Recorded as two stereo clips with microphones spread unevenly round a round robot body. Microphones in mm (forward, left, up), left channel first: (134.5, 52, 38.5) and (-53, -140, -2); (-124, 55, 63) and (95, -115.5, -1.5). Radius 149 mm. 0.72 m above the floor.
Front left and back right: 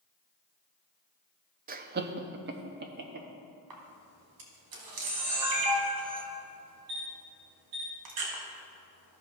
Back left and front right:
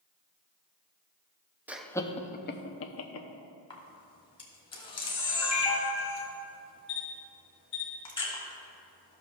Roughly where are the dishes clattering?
No dishes clattering in this recording.